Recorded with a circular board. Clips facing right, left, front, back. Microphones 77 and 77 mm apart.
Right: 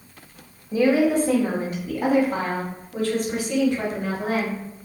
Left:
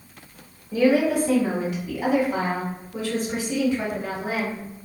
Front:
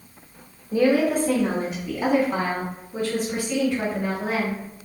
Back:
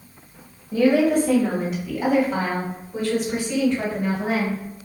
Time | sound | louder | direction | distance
0.7 | a woman speaking | right 1 dB, back 2 dB | 50° right | 1.4 m